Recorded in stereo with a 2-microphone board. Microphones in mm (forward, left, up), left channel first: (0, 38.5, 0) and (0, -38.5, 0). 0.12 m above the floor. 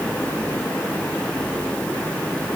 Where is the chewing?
I don't hear chewing.